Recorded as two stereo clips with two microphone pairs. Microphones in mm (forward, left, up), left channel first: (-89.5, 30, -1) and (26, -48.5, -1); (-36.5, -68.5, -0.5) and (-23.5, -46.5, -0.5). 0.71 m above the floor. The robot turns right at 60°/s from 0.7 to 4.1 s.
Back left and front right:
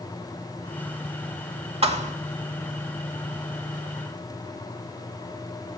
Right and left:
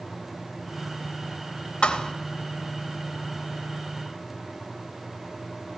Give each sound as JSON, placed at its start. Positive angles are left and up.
{"t": 1.8, "sound": "a thud", "azimuth_deg": -80, "distance_m": 1.0}